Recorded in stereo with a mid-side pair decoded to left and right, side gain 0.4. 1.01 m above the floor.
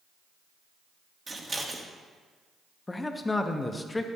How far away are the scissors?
About 1.3 m.